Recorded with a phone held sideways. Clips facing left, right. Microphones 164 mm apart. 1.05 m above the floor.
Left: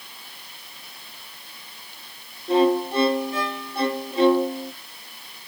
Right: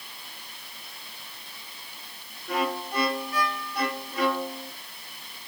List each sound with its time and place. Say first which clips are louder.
2.5 s a violin: left 10 dB; 25° left (ahead or behind), 0.6 m